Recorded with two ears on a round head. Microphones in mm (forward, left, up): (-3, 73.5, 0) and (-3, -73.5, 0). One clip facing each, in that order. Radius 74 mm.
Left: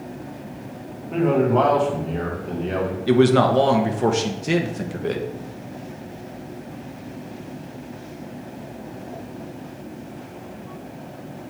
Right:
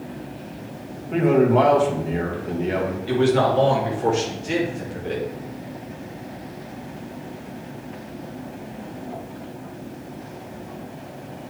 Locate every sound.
1.1 s a man speaking: 10° right (ahead or behind), 1.7 m
3.1 s a man speaking: 70° left (ahead or behind), 1.2 m